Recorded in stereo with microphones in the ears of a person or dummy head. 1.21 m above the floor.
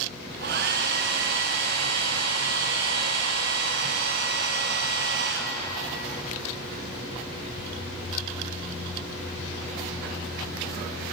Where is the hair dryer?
50° right (ahead or behind), 1.1 m.